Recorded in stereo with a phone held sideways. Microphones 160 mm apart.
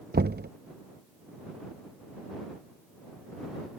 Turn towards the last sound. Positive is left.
turn(degrees=-80)